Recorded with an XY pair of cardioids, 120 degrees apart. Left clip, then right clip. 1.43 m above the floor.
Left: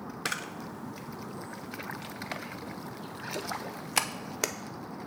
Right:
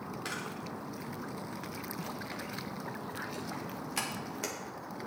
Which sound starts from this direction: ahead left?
A camera shutter, at 0.2 s.